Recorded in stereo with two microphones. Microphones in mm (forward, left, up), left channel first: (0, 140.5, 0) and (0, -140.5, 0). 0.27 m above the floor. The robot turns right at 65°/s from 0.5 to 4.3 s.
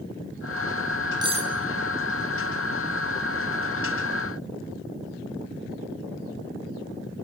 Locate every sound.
1.2 s cutlery clinking: 15° right (ahead or behind), 2 m; by 1.5 s 35° right (ahead or behind), 2 m